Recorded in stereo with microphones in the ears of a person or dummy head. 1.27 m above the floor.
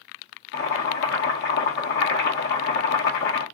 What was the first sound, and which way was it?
Boiling, 70° left (ahead or behind).